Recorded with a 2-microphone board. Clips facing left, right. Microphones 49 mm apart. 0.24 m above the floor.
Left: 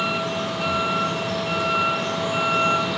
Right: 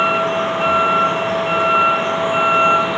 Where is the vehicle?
35° right (ahead or behind); by 3.0 s 30° right (ahead or behind).